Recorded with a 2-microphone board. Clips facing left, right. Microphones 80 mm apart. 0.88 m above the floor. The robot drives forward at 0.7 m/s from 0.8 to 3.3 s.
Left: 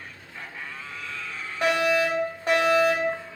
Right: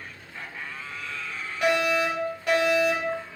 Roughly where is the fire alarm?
Left.